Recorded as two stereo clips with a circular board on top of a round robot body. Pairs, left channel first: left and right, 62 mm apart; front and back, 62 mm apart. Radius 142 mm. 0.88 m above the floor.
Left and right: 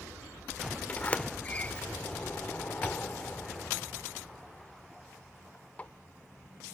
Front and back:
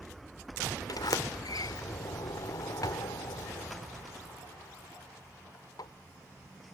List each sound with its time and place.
0.9 s a sliding door: 20° left